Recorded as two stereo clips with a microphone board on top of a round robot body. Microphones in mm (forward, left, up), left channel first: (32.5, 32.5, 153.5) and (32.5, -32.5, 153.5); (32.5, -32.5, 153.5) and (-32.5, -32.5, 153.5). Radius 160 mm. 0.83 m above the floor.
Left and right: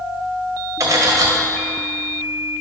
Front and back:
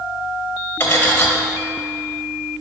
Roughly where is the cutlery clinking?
Ahead right.